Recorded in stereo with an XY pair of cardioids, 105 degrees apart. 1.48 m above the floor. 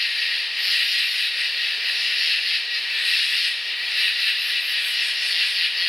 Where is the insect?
5° left, 0.7 m.